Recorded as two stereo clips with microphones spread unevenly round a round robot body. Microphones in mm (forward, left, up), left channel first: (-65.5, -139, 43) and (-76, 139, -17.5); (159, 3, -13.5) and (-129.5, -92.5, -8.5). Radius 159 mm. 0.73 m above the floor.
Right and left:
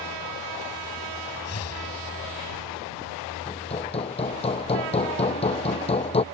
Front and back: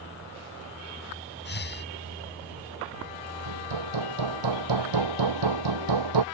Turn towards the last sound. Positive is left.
turn(degrees=-155)